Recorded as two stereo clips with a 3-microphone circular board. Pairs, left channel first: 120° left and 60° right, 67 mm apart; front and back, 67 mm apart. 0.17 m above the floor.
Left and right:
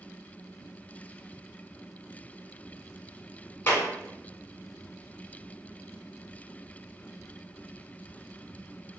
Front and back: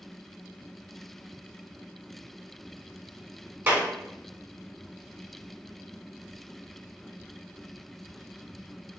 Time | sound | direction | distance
3.7 | a clap | 150° left | 0.9 m